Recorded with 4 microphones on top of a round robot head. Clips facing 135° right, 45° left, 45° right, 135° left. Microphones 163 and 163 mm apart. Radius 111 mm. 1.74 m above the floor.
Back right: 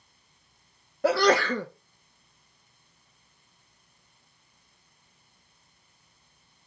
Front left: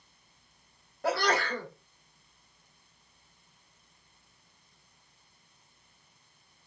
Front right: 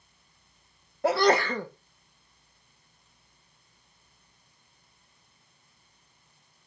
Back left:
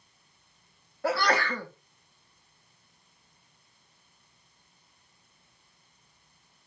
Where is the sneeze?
115° right, 0.5 m.